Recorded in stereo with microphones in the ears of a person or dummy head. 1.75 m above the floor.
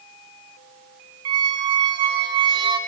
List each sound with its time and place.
1.2 s a squeak: 25° right (ahead or behind), 0.8 m